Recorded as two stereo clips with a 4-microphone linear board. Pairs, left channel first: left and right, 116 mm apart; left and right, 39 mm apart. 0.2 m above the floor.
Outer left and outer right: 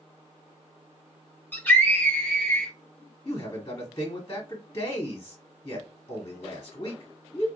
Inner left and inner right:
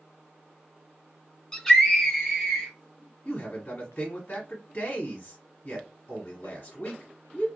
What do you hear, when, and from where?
1.5 s a scream: 15° left (ahead or behind), 1.0 m; by 2.7 s 10° left (ahead or behind), 1.3 m
3.2 s a man speaking: 35° left (ahead or behind), 1.1 m